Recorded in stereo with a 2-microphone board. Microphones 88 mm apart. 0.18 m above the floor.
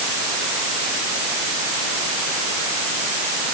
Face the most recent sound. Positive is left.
No sound to turn to.